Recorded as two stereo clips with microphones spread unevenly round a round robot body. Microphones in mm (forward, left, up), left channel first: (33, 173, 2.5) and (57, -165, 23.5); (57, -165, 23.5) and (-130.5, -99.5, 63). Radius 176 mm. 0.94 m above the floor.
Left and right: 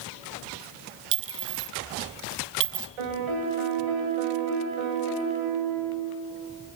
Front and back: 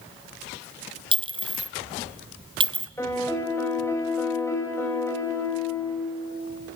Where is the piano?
100° right, 3.5 m.